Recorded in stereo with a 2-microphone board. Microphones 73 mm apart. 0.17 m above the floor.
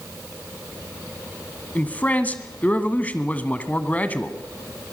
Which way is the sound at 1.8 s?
20° left (ahead or behind).